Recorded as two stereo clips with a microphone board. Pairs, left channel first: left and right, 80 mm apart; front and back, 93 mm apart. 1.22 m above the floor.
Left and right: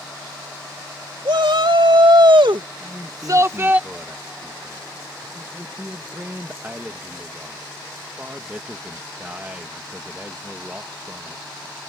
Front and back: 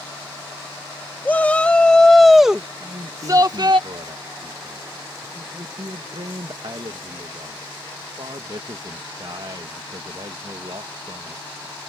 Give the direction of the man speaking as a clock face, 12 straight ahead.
5 o'clock.